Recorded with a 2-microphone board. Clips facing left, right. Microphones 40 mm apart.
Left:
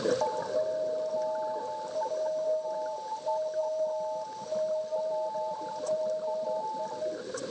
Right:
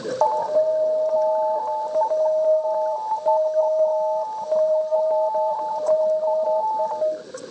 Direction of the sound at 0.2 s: 50° right (ahead or behind).